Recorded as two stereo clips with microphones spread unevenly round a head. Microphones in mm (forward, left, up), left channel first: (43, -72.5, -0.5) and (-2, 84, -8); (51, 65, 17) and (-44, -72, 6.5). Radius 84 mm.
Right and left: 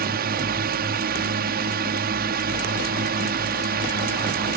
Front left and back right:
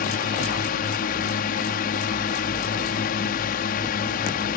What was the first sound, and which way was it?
A drone, 90° left.